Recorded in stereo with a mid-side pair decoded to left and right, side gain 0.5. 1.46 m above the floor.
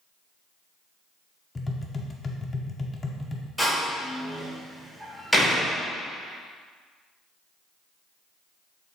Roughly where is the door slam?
Ahead.